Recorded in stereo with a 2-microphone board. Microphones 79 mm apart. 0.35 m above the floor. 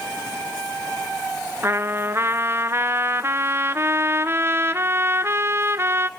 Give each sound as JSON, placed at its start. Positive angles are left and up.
{"t": 1.6, "sound": "a trumpet", "side_deg": -30, "distance_m": 0.7}